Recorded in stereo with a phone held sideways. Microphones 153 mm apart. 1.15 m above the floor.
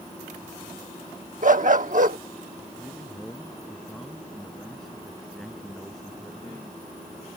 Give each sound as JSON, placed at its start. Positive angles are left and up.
{"t": 1.4, "sound": "a dog barking", "side_deg": -60}
{"t": 2.8, "sound": "a man speaking", "side_deg": 0}